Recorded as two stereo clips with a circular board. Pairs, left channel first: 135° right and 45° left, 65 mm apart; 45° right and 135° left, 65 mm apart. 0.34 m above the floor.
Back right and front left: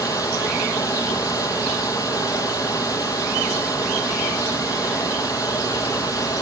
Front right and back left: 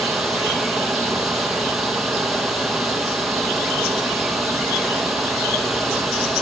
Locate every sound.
0.0 s running water: 140° right, 5 m